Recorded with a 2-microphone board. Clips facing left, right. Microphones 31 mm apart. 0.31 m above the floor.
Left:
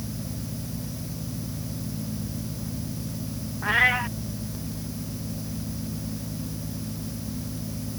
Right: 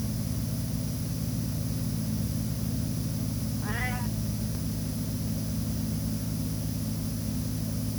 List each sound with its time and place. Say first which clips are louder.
3.6 s a cat meowing: left 15 dB; 85° left